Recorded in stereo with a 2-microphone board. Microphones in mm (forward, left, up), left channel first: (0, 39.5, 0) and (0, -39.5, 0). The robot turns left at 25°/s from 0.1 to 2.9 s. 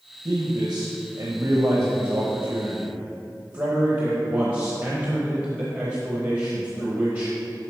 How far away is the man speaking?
About 1.0 m.